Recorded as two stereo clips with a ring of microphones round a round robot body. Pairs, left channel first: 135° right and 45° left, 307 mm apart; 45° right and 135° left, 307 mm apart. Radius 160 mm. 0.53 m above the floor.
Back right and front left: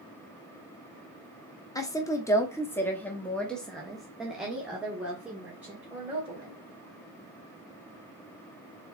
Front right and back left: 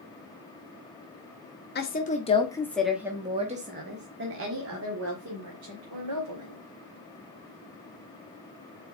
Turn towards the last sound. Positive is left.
turn(degrees=130)